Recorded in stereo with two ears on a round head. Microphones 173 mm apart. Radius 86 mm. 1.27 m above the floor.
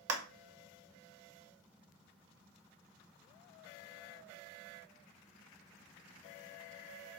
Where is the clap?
90° right, 0.9 m.